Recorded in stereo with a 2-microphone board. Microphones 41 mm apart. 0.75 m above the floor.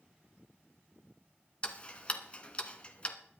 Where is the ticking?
25° left (ahead or behind), 1.3 m.